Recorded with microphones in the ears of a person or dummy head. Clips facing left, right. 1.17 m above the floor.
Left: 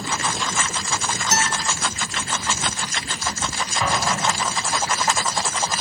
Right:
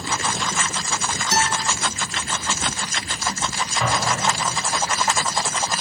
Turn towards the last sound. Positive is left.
turn(degrees=5)  # may be behind; listen again after turning